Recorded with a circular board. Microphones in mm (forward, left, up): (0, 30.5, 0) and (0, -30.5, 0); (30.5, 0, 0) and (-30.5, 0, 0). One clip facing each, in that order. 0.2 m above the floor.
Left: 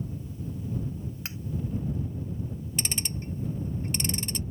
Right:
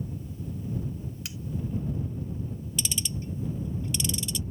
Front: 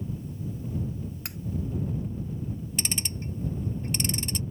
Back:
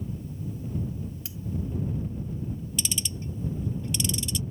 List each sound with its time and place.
1.2 s cutlery clinking: 35° left
2.8 s ticking: 45° left